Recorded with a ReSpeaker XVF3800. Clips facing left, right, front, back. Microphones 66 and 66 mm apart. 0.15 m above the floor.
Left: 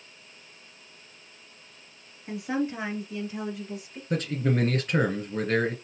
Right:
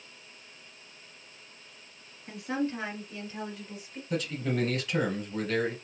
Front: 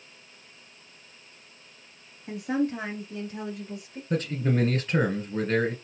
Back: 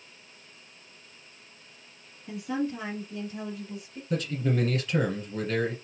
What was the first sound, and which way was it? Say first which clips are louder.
A woman speaking: left 3 dB, front 3 dB; 20° left.